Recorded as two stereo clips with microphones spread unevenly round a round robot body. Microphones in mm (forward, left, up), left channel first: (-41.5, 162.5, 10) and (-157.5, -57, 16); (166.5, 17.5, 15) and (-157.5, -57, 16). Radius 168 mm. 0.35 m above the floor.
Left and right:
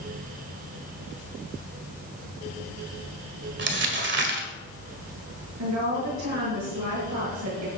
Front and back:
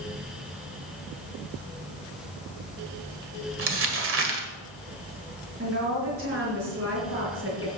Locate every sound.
3.6 s crumpling: 135° right, 1.8 m
5.6 s a woman speaking: 115° right, 5.5 m